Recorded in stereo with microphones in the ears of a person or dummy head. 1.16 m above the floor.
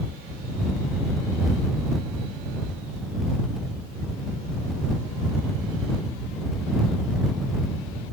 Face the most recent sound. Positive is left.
No sound to turn to.